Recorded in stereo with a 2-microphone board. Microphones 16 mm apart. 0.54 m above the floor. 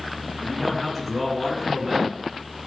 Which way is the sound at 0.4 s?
15° right (ahead or behind).